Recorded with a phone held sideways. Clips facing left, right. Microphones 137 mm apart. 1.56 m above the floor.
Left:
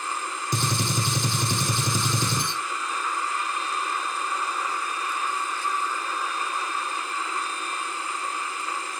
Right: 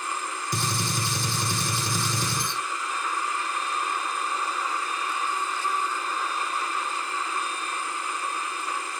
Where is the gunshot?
20° left (ahead or behind), 0.8 m.